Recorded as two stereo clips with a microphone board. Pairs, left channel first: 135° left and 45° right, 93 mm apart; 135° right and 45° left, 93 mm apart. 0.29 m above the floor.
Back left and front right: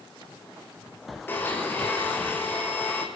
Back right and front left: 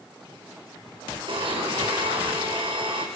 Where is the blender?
65° left, 7 m.